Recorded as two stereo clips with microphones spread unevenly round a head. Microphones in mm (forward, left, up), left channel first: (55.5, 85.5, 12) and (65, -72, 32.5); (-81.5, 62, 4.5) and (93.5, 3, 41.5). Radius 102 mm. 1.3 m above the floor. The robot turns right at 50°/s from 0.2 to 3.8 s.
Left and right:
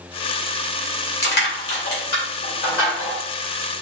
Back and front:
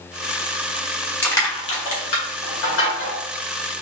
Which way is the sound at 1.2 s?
85° left.